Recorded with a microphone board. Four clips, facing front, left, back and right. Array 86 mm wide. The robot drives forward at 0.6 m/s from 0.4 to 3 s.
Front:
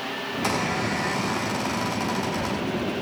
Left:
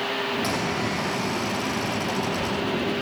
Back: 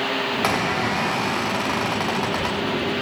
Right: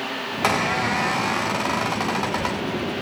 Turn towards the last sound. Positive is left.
turn(degrees=-145)